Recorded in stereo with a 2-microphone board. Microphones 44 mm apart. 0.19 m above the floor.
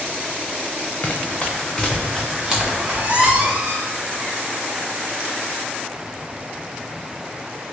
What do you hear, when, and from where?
1.0 s running footsteps: 30° left (ahead or behind), 0.8 m; by 3.5 s 30° right (ahead or behind), 1.5 m
2.8 s a squeak: 30° right (ahead or behind), 0.5 m